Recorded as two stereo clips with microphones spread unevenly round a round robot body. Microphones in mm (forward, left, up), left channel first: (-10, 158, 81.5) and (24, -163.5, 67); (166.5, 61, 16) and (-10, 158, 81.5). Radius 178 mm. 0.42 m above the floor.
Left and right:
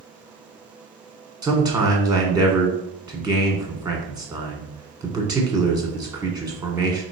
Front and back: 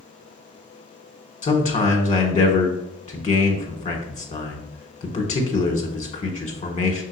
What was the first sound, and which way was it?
A man speaking, straight ahead.